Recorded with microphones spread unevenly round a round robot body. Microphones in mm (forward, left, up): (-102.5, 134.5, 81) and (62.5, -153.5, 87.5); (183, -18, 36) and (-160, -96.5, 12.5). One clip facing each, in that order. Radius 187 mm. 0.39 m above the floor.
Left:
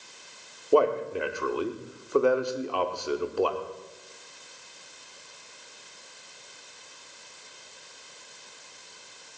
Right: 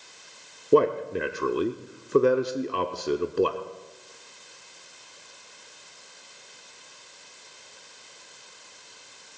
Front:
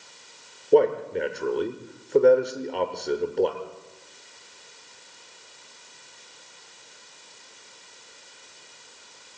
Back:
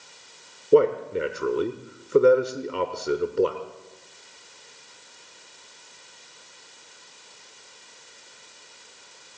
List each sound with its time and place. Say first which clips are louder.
0.7 s a man speaking: right 2 dB, back 1 dB; 105° right, 1.0 m